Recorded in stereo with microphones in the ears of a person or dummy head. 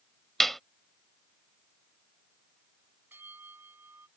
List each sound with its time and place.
0.4 s a clap: centre (ahead or behind)
3.1 s a bell: 10° right (ahead or behind)